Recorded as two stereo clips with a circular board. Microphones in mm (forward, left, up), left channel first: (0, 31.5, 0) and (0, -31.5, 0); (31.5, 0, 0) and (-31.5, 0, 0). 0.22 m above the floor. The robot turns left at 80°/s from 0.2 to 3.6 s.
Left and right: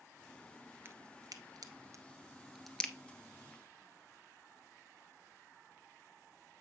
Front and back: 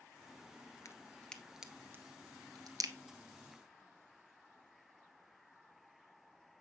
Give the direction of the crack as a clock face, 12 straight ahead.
1 o'clock.